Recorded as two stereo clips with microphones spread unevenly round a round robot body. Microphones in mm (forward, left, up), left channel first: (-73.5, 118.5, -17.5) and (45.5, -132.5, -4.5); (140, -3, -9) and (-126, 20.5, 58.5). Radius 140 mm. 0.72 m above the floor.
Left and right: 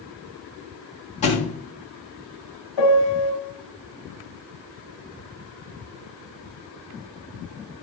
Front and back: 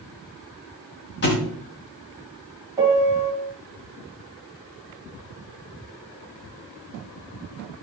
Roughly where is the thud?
Ahead left.